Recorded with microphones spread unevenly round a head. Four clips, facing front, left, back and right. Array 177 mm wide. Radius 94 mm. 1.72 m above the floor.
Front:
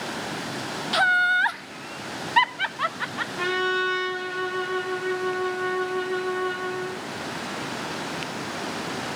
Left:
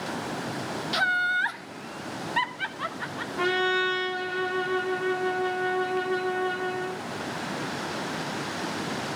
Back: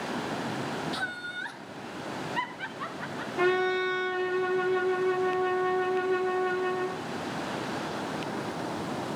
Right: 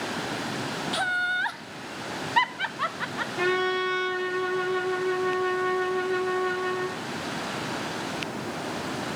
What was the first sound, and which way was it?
Laughter, 5° left.